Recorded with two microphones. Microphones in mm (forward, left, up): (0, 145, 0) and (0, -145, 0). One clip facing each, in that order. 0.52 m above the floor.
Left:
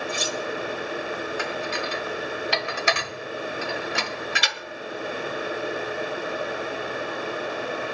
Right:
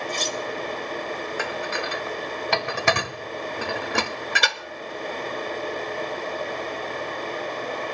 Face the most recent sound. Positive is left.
turn(degrees=-60)  # may be behind; listen again after turning